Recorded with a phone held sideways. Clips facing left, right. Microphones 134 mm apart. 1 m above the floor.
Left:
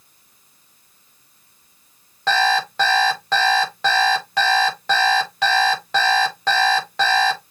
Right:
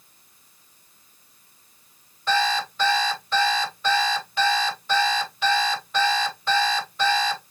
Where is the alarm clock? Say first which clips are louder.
Left 4 dB; 75° left (ahead or behind), 1.5 m.